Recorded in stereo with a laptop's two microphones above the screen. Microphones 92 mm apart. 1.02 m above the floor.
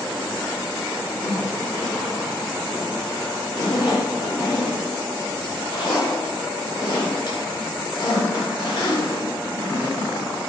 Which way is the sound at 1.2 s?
50° left (ahead or behind).